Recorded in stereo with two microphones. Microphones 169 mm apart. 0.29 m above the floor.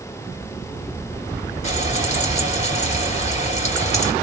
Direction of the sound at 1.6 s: 45° left (ahead or behind).